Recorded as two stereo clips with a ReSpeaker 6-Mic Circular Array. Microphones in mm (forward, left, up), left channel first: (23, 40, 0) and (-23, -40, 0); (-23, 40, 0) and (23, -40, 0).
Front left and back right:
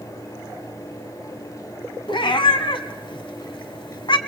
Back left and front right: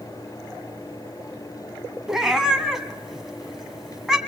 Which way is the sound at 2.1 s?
25° left.